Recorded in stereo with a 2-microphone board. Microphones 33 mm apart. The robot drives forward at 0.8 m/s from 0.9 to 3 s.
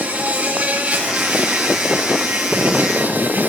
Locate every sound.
0.0 s an insect: 35° right (ahead or behind), 4.5 m; by 3.5 s 55° right (ahead or behind), 3 m